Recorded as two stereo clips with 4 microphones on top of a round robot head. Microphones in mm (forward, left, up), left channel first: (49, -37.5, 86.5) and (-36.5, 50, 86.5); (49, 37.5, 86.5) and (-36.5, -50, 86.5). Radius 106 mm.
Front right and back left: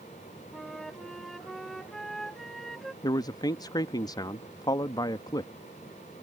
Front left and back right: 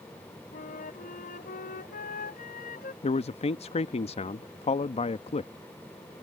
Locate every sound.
0.5 s a flute: 40° left
3.0 s a man speaking: 10° left